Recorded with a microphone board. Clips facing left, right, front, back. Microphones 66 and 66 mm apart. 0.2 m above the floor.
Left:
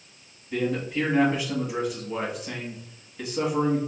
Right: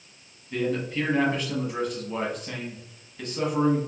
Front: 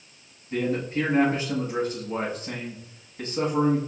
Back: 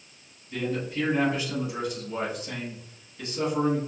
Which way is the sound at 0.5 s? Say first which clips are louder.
Even, front 4 dB; 10° left.